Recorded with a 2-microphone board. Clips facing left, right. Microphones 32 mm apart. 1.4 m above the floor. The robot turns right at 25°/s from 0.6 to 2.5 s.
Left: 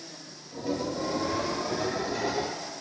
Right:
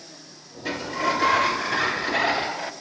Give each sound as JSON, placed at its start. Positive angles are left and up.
{"t": 0.7, "sound": "a sliding door", "azimuth_deg": -100, "distance_m": 0.9}